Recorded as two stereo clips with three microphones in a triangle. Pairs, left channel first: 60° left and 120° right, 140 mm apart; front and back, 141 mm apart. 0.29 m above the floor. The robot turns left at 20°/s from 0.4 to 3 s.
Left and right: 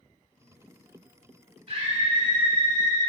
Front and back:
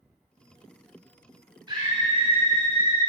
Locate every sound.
1.7 s a scream: 135° right, 1.9 m; by 3.0 s 165° right, 1.9 m